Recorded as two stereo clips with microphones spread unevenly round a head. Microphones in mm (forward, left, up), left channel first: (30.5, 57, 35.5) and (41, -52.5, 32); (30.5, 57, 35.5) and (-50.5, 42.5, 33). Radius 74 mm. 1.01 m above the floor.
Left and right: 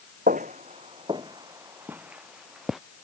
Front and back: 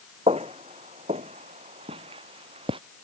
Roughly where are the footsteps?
Behind right.